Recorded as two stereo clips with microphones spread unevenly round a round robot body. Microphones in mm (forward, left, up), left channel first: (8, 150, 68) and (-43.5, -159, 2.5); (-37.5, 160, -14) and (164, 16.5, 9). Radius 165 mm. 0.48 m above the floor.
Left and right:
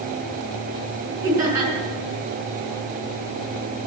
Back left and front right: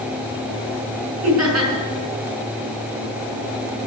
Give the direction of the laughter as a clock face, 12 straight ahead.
1 o'clock.